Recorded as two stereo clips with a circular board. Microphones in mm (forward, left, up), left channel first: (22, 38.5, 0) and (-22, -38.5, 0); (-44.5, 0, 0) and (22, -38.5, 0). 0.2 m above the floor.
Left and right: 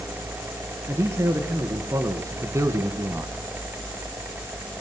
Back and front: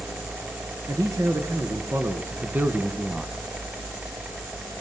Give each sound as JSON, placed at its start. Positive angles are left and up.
{"t": 0.9, "sound": "a man speaking", "azimuth_deg": -60, "distance_m": 3.0}